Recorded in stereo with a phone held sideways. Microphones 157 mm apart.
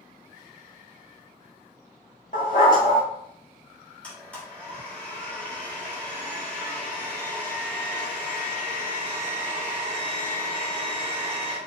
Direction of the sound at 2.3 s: 60° left (ahead or behind).